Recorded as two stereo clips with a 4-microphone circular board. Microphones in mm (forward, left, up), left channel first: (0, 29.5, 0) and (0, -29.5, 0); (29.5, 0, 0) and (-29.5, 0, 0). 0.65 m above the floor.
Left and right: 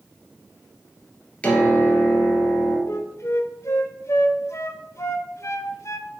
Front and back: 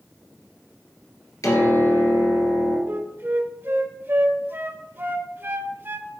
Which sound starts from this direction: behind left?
A flute, at 2.9 s.